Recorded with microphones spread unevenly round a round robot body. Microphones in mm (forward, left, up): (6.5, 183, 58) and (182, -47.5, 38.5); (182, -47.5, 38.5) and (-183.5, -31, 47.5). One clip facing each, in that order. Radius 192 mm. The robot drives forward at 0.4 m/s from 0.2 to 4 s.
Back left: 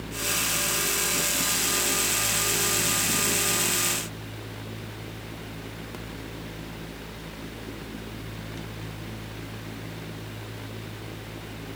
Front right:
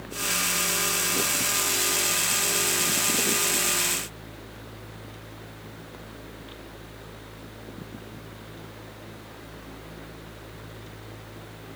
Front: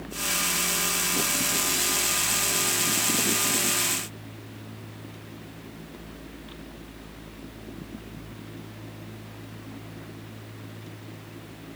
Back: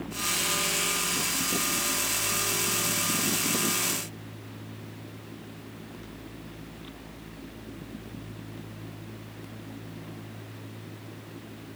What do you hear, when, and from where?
Only background noise.